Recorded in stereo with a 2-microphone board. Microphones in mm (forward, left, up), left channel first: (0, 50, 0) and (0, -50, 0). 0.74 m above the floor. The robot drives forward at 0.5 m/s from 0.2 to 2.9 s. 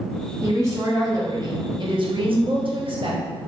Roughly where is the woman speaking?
Right.